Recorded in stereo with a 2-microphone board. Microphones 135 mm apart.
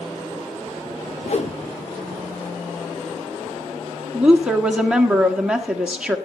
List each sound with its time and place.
1.2 s a whoosh: 55° left (ahead or behind), 0.9 m
4.1 s a woman speaking: 5° right (ahead or behind), 1.5 m